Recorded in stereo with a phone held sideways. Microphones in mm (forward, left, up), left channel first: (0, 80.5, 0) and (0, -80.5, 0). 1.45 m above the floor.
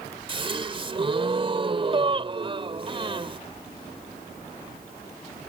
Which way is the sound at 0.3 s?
35° right (ahead or behind).